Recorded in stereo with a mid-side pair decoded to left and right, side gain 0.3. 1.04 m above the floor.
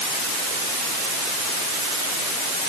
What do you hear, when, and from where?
Only background noise.